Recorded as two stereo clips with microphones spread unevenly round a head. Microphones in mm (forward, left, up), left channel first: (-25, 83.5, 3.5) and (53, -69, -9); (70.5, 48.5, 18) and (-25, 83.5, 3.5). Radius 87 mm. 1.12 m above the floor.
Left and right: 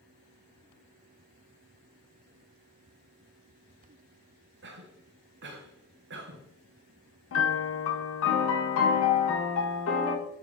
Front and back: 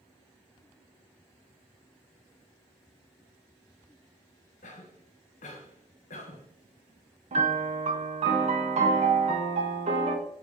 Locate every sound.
4.6 s a cough: 45° right, 0.7 m
7.3 s a piano: 135° left, 0.8 m